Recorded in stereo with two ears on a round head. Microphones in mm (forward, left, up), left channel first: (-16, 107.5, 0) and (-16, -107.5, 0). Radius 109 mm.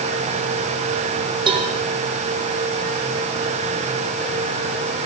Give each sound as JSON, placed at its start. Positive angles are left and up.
{"t": 1.5, "sound": "a cowbell", "side_deg": -20, "distance_m": 4.5}